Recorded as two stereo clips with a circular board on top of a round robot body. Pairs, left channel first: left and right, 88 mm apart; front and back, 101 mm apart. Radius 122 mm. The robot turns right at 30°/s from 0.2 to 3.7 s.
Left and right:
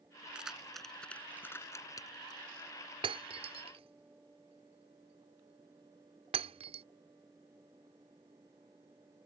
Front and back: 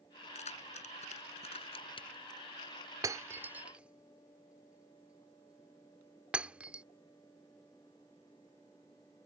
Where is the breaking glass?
120° right; by 6.8 s 100° right.